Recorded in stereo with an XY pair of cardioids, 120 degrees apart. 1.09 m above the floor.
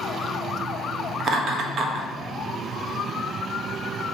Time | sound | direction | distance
1.2 | laughter | 50° right | 1.0 m